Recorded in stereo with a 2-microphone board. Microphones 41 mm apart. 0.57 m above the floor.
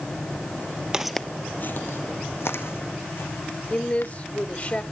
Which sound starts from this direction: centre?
Footsteps, at 0.9 s.